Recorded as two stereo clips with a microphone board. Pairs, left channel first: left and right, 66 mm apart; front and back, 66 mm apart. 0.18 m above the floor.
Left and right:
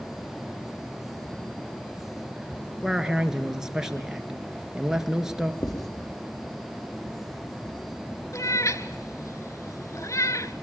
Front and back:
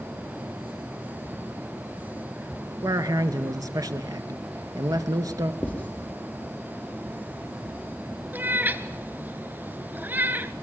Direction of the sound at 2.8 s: 170° right.